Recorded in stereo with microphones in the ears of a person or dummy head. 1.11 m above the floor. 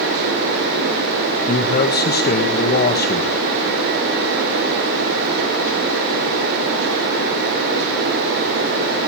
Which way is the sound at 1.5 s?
35° left (ahead or behind).